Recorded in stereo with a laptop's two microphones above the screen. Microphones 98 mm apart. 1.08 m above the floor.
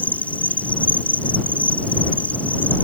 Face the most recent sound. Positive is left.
turn(degrees=15)  # may be behind; listen again after turning